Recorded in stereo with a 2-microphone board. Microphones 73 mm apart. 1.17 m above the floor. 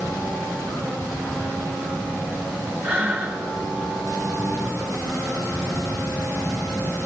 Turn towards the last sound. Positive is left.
turn(degrees=-30)  # may be behind; listen again after turning